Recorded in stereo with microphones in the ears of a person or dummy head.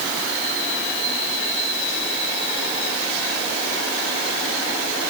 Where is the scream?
I don't hear a scream.